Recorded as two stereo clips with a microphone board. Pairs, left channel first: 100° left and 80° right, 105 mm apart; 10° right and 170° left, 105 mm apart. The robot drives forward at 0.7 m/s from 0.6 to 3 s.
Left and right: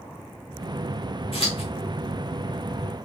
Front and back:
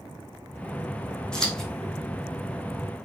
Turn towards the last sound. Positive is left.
turn(degrees=95)